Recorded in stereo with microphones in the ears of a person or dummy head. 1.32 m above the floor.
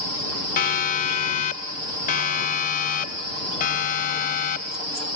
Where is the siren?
45° left (ahead or behind).